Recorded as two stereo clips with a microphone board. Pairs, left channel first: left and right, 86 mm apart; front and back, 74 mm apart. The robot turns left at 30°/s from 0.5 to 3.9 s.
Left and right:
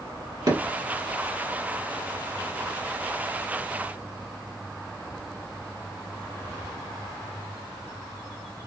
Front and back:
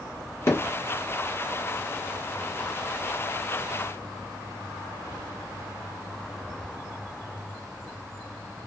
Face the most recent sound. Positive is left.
turn(degrees=-155)